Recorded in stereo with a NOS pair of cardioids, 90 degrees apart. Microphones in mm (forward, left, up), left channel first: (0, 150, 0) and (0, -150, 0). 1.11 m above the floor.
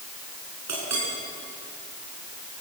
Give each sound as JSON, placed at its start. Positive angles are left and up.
{"t": 0.7, "sound": "a clink", "azimuth_deg": -60, "distance_m": 8.5}